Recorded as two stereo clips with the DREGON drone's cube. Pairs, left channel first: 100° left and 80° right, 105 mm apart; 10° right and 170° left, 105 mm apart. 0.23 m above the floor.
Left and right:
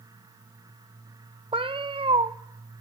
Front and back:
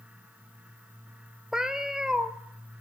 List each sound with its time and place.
1.5 s a cat meowing: 105° right, 0.6 m